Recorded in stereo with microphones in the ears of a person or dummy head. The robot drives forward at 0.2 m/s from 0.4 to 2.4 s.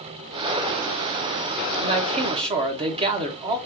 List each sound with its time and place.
1.8 s a man speaking: 30° right (ahead or behind), 0.8 m; by 3.6 s 25° right (ahead or behind), 0.9 m